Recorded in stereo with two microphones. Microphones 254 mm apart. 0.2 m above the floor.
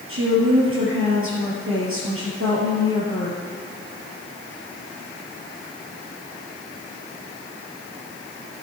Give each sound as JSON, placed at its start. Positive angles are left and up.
{"t": 0.1, "sound": "a woman speaking", "side_deg": -55, "distance_m": 4.0}